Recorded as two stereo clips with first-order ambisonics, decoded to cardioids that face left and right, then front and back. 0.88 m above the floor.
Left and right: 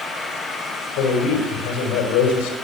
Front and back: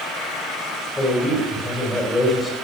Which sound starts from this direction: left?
A man speaking, at 1.0 s.